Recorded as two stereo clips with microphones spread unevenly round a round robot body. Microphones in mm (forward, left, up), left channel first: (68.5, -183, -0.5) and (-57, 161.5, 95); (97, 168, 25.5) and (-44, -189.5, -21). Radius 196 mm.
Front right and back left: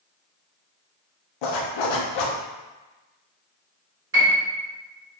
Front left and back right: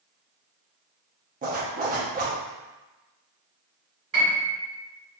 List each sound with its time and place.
1.4 s a zipper: 40° right, 0.5 m
4.1 s a piano: 175° left, 1.5 m